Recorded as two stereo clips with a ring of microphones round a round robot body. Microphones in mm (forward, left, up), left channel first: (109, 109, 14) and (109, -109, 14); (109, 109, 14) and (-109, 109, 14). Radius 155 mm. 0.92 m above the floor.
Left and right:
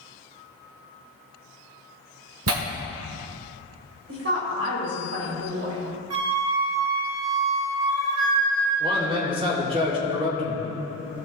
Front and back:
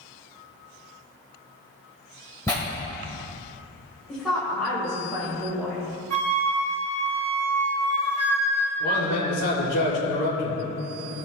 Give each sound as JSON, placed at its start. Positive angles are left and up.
{"t": 2.5, "sound": "tearing paper", "azimuth_deg": -80, "distance_m": 1.5}
{"t": 4.1, "sound": "a woman speaking", "azimuth_deg": -90, "distance_m": 3.5}
{"t": 6.1, "sound": "a flute", "azimuth_deg": -115, "distance_m": 3.0}
{"t": 8.8, "sound": "a man speaking", "azimuth_deg": -25, "distance_m": 3.0}